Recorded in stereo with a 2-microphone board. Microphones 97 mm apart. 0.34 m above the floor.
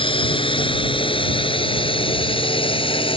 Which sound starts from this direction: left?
A drone, at 0.0 s.